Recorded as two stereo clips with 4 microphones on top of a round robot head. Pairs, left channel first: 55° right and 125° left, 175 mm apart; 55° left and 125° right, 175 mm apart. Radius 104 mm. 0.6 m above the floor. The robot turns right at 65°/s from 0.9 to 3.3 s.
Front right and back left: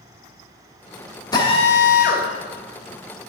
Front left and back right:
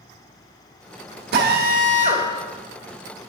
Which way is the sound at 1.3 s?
125° right.